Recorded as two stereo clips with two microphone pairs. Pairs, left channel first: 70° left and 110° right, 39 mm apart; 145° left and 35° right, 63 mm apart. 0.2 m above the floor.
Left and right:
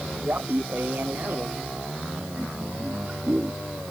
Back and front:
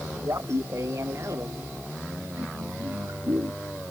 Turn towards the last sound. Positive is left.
turn(degrees=-65)